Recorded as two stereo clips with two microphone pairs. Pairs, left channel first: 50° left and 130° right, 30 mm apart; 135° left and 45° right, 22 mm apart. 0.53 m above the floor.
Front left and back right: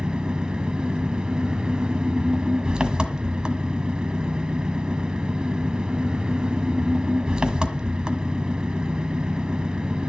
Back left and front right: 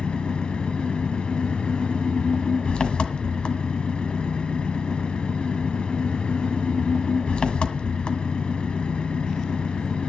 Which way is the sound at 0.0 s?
170° left.